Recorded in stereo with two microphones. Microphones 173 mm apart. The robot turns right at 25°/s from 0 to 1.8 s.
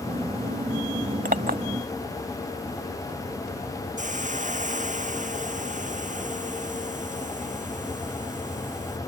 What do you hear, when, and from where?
1.2 s a clink: 55° right (ahead or behind); by 1.6 s 60° right (ahead or behind)
4.0 s a hiss: 45° right (ahead or behind)